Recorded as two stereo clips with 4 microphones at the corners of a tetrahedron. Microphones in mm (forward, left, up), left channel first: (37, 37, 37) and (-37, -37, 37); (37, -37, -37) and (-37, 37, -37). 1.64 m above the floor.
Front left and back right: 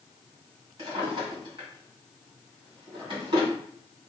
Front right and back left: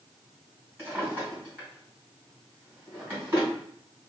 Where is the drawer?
160° right, 1.9 m.